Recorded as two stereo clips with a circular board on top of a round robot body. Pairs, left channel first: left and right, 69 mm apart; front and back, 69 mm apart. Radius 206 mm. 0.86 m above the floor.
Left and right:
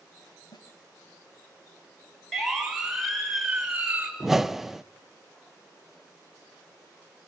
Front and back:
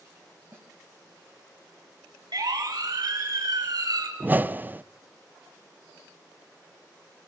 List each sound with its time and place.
0.5 s a snare drum: 120° left, 1.0 m
2.3 s a siren: straight behind, 6.5 m; by 4.1 s 165° right, 6 m
4.2 s a whoosh: 170° right, 0.7 m